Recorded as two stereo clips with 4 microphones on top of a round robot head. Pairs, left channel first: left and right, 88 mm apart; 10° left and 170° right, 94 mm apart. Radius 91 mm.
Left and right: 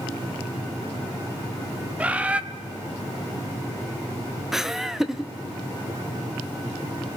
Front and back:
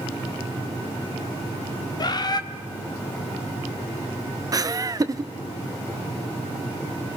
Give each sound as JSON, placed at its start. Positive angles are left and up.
{"t": 2.0, "sound": "a bird", "azimuth_deg": -20, "distance_m": 1.1}
{"t": 4.5, "sound": "laughter", "azimuth_deg": -175, "distance_m": 0.8}